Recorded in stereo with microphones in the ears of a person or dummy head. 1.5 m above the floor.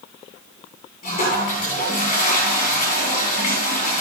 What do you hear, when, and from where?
1.0 s a toilet flushing: 50° left (ahead or behind), 8.5 m